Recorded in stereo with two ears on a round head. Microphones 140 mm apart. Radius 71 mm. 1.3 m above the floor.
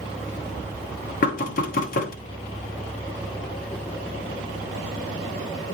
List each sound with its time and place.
1.2 s knocking: 60° left (ahead or behind), 1.1 m